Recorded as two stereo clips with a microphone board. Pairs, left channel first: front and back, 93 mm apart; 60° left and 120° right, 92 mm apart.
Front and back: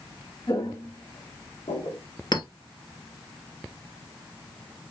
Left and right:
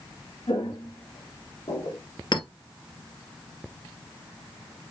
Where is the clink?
30° left, 2.5 m.